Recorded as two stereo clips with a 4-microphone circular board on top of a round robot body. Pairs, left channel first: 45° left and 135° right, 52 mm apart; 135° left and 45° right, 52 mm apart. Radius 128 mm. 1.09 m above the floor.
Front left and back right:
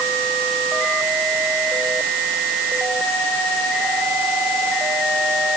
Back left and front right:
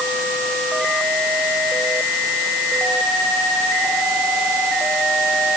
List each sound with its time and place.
Only background noise.